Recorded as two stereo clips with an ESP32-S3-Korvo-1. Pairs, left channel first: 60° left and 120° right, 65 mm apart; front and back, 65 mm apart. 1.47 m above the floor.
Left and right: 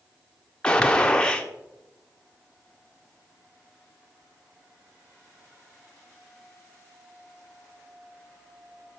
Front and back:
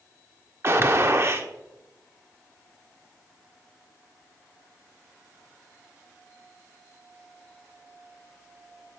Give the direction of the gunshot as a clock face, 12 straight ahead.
7 o'clock.